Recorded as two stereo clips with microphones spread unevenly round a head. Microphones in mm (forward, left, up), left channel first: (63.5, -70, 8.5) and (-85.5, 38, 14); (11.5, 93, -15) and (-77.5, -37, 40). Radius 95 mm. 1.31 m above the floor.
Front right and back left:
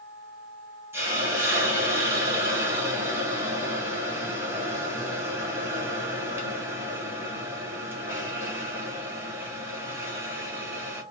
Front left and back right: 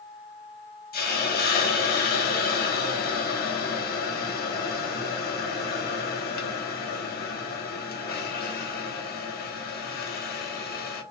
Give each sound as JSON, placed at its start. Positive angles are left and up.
{"t": 0.9, "sound": "a hiss", "azimuth_deg": 65, "distance_m": 1.0}